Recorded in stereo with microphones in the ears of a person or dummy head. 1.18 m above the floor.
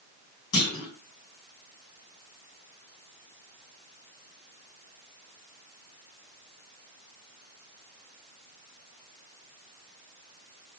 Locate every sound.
0.5 s a clunk: 65° left (ahead or behind), 1.7 m